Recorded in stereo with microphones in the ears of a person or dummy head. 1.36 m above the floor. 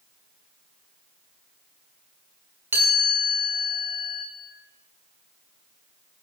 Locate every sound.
2.7 s a chime: 10° right (ahead or behind), 1.1 m